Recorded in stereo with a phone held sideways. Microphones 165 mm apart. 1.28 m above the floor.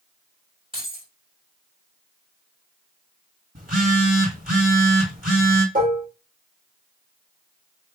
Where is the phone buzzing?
60° right (ahead or behind), 2.5 m.